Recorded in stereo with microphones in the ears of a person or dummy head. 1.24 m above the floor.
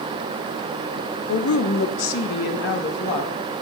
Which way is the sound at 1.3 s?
60° left (ahead or behind).